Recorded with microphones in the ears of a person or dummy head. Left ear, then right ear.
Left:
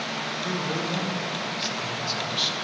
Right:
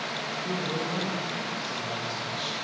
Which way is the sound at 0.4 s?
35° left (ahead or behind).